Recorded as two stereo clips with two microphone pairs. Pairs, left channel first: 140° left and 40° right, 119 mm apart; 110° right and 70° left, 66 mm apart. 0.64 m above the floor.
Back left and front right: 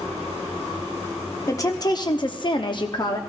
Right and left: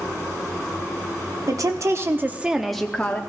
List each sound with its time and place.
1.5 s a woman speaking: 80° left, 1.0 m; by 3.2 s 170° right, 0.9 m